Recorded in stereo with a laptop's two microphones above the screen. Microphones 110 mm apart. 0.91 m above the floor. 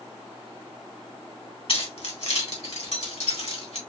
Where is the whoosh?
No whoosh in this recording.